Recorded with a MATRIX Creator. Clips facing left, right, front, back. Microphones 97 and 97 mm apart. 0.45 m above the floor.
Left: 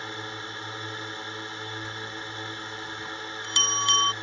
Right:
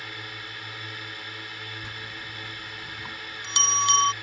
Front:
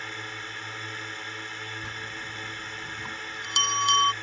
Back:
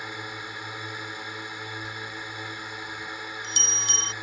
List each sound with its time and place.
0.0 s a drone: 115° left
1.8 s a bell: 20° right